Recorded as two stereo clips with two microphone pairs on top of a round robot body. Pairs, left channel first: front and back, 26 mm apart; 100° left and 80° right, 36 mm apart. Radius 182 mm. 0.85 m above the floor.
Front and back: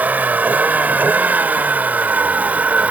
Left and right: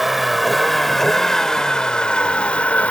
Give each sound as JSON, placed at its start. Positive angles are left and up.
{"t": 0.0, "sound": "a vehicle", "azimuth_deg": -165}